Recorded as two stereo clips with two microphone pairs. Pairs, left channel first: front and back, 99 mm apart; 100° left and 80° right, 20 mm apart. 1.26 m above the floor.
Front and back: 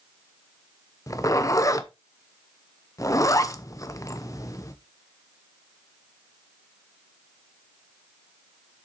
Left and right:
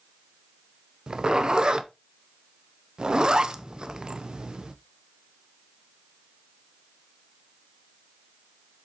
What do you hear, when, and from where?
1.1 s a zipper: 40° right, 0.7 m